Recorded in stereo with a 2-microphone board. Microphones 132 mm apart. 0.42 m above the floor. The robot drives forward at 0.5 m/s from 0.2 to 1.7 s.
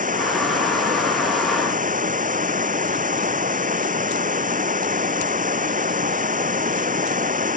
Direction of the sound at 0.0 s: 90° right.